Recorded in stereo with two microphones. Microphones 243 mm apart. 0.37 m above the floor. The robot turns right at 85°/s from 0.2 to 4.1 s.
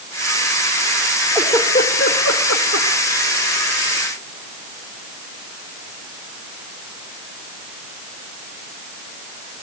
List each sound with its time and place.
1.4 s a giggle: 5° right (ahead or behind), 5.5 m; by 2.9 s 55° left (ahead or behind), 5.5 m